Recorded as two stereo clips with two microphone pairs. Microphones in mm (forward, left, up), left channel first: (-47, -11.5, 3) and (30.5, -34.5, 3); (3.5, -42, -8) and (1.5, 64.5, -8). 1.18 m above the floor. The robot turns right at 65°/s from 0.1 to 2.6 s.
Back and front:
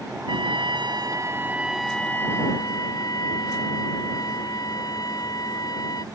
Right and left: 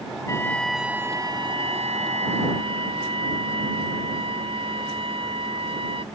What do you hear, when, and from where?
0.3 s a trumpet: 30° right; by 6.0 s 125° left